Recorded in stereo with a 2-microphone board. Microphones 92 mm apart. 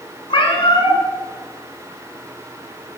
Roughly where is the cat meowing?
Left.